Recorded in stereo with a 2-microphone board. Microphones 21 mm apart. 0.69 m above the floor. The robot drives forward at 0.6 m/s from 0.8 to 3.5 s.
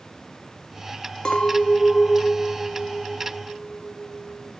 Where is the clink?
40° left (ahead or behind), 0.7 m; by 4.5 s 15° left (ahead or behind), 1.7 m.